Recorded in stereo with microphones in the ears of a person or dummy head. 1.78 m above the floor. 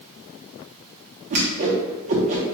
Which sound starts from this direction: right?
A whoosh, at 1.3 s.